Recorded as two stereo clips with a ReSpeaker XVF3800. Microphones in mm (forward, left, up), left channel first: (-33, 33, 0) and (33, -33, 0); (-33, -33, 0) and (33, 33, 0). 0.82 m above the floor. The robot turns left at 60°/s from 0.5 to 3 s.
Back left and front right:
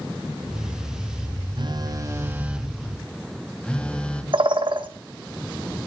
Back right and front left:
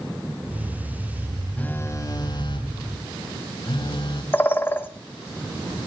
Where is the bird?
65° right, 1.5 m.